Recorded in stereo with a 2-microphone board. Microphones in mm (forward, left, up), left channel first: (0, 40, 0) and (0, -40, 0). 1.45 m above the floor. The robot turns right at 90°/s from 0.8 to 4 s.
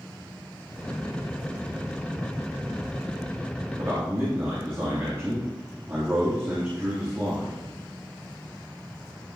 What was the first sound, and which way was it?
A man speaking, 45° right (ahead or behind).